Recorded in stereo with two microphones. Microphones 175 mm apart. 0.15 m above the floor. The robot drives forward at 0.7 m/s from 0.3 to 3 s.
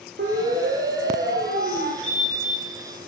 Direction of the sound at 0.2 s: 80° right.